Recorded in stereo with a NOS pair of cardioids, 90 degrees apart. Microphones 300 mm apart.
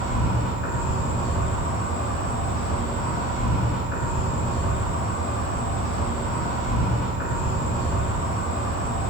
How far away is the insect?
About 1.7 m.